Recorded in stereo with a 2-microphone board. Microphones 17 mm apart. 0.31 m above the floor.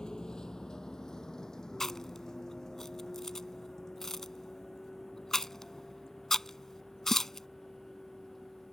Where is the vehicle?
50° left (ahead or behind); by 8.7 s 20° left (ahead or behind).